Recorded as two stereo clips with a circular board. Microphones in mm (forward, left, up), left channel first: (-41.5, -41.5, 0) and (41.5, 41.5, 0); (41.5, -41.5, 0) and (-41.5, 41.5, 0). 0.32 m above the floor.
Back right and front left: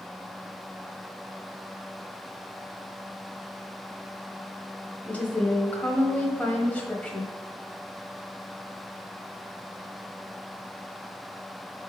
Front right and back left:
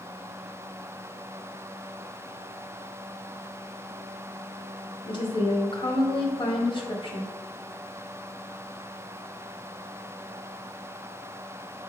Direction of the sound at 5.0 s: 60° right.